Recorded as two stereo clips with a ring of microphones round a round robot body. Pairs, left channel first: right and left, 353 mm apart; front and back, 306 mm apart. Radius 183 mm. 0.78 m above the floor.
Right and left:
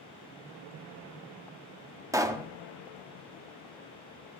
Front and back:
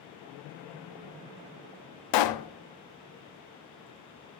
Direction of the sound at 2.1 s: 10° left.